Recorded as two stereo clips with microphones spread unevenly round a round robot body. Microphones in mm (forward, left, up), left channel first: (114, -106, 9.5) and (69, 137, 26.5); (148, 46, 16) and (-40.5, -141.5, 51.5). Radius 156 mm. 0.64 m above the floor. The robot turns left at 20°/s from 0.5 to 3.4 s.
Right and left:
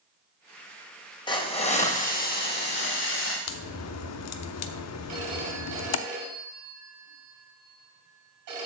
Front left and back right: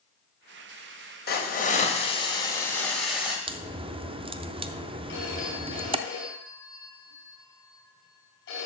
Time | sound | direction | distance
1.3 | a hiss | 10° right | 2 m
3.5 | a crack | 60° right | 0.6 m
5.1 | a phone ringing | 100° left | 3.5 m